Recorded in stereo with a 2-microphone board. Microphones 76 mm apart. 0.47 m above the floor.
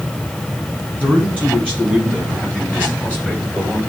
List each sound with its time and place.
1.0 s a man speaking: 20° right (ahead or behind), 5.5 m